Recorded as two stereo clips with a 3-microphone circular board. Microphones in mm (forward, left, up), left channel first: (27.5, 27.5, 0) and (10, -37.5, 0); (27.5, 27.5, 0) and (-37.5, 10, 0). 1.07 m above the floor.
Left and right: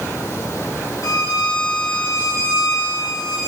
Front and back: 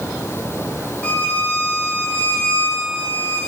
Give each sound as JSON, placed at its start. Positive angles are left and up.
{"t": 1.0, "sound": "a violin", "azimuth_deg": 85, "distance_m": 1.2}